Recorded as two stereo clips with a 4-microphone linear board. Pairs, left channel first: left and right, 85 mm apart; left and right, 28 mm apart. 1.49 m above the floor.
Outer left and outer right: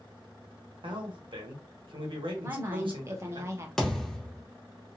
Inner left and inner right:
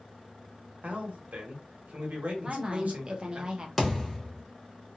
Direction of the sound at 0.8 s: 65° right (ahead or behind).